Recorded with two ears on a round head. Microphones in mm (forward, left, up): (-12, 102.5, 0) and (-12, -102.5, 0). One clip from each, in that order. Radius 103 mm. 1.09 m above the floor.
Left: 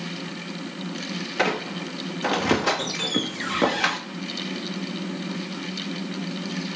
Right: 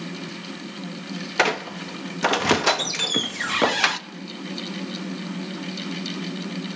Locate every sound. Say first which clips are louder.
1.4 s a squeak: right 3 dB; 35° right (ahead or behind), 0.6 m